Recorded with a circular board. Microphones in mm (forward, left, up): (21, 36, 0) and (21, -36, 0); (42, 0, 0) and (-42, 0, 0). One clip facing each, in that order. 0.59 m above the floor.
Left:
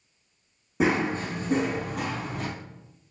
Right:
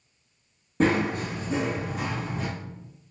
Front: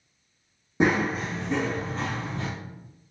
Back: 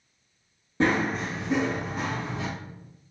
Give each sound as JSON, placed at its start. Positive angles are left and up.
{"t": 0.8, "sound": "running footsteps", "azimuth_deg": 25, "distance_m": 0.5}